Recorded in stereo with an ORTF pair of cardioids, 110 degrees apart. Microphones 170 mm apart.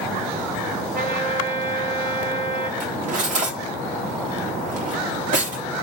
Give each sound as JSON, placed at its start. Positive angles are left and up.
{"t": 0.9, "sound": "a trumpet", "azimuth_deg": -55, "distance_m": 1.8}
{"t": 2.8, "sound": "cutlery clinking", "azimuth_deg": -50, "distance_m": 1.6}